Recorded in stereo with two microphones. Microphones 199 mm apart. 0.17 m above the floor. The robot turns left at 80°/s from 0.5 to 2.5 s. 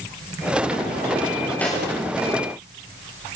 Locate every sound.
1.6 s a snare drum: 10° left (ahead or behind), 8.5 m; by 1.9 s 10° right (ahead or behind), 8.5 m